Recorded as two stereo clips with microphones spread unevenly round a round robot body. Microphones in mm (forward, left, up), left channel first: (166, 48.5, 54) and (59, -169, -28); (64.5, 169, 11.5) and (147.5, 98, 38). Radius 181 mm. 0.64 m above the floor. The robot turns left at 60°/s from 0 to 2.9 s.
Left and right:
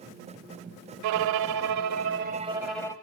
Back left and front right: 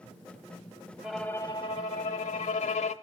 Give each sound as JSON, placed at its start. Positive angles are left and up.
{"t": 1.0, "sound": "a violin", "azimuth_deg": -115, "distance_m": 0.6}